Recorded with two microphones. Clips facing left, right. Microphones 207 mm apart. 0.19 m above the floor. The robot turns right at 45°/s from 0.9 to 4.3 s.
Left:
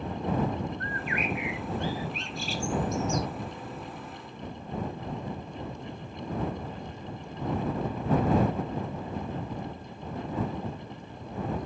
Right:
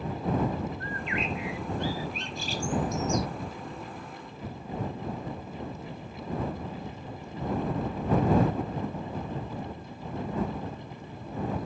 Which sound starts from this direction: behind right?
A bird, at 0.8 s.